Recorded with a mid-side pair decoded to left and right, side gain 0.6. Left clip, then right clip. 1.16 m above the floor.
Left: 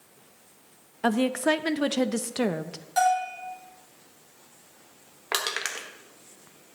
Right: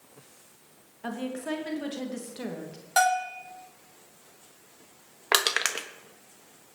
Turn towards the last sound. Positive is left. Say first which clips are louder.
# right 4 dB
turn(degrees=-35)